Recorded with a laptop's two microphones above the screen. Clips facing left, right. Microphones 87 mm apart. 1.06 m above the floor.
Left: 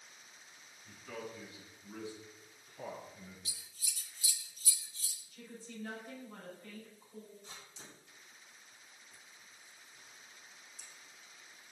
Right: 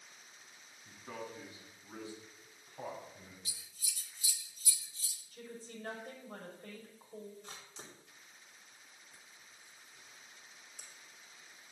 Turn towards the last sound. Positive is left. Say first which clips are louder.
# right 2 dB
turn(degrees=-65)  # may be behind; listen again after turning